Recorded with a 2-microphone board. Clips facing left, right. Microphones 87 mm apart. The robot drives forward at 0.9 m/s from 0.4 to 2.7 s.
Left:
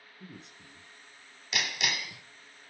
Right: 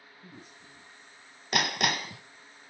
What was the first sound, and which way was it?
A man speaking, 75° left (ahead or behind).